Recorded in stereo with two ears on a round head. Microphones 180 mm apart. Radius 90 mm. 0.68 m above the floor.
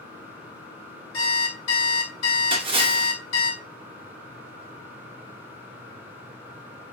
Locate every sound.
1.1 s an alarm clock: 65° left (ahead or behind), 1.1 m
2.5 s a splash: 25° right (ahead or behind), 0.9 m